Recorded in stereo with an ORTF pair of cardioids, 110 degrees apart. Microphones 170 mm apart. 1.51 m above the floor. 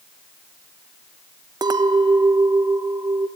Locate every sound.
1.6 s a clink: 25° right, 1.1 m